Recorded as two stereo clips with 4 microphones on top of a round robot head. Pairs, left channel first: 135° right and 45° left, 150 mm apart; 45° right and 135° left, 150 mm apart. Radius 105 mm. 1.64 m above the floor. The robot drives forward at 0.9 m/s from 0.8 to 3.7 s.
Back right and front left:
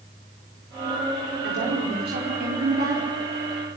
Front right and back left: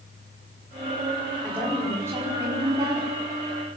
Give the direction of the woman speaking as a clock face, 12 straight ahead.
10 o'clock.